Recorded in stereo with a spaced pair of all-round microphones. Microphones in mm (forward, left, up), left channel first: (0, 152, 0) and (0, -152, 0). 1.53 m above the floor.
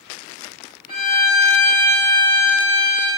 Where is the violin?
30° left (ahead or behind), 2 m.